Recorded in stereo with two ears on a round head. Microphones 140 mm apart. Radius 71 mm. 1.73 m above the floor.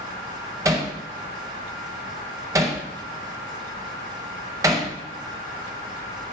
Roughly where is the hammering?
Right.